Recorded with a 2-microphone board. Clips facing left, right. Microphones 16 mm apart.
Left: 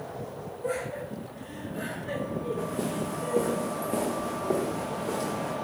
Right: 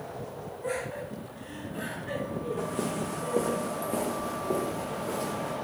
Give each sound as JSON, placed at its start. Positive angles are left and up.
{"t": 0.6, "sound": "laughter", "side_deg": -45, "distance_m": 1.9}
{"t": 2.6, "sound": "footsteps", "side_deg": -60, "distance_m": 1.0}